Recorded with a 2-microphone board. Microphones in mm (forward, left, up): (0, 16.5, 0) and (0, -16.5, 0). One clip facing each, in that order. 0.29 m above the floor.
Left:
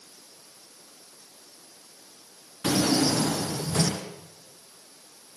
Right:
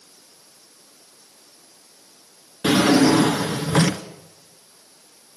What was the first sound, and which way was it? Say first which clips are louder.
A drawer: right 8 dB; 80° right.